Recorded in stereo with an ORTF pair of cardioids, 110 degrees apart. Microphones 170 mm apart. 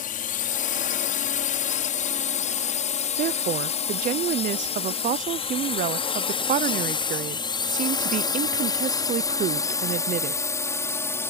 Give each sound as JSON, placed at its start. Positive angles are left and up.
{"t": 0.0, "sound": "a drone", "azimuth_deg": 55}
{"t": 3.2, "sound": "a woman speaking", "azimuth_deg": -55}